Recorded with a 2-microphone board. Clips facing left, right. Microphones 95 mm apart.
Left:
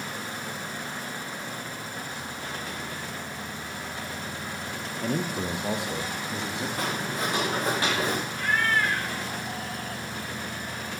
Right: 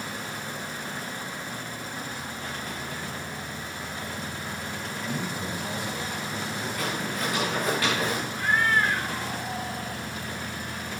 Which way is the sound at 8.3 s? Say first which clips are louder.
Right 3 dB; 25° right (ahead or behind).